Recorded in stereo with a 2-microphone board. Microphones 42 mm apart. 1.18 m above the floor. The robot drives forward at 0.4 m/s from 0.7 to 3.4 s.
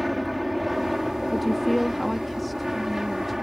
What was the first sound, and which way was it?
An aircraft, centre (ahead or behind).